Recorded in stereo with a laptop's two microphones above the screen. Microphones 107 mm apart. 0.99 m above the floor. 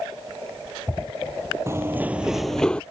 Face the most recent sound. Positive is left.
turn(degrees=10)  # may be behind; listen again after turning